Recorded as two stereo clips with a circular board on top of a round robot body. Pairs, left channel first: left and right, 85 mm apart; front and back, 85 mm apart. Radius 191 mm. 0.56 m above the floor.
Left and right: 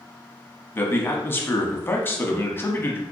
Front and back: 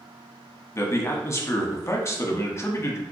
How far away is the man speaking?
About 1.0 m.